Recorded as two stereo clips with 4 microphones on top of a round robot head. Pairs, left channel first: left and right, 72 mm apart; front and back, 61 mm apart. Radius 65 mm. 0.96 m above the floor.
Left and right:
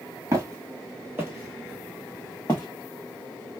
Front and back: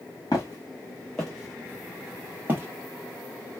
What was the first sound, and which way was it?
Footsteps, 55° right.